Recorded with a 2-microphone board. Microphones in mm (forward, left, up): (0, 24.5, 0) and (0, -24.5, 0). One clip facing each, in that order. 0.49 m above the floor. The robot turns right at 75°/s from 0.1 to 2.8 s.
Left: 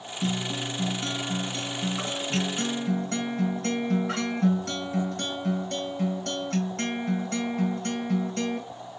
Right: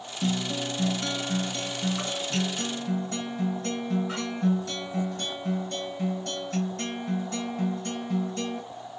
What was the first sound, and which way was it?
A guitar, 130° right.